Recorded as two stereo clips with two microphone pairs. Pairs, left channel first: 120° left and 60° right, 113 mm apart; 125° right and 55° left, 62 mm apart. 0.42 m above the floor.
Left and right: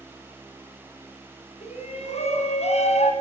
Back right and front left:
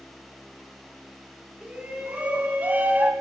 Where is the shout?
125° left, 5.5 m; by 3.1 s 110° left, 4 m.